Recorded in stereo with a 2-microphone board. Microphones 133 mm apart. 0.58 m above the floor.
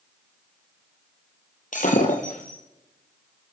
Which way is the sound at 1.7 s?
80° left.